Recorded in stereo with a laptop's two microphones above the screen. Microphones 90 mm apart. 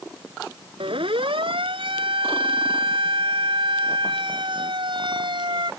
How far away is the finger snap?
No finger snap in this recording.